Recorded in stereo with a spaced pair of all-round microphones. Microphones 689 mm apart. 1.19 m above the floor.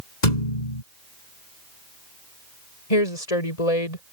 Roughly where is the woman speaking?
Left.